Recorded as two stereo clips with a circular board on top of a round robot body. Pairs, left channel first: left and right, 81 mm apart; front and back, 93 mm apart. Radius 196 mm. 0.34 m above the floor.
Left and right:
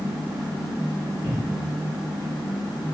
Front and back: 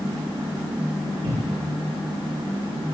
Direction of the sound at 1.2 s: 165° left.